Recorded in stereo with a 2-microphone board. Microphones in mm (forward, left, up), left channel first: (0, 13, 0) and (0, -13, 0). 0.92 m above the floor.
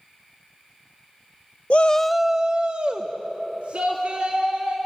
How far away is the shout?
About 0.5 m.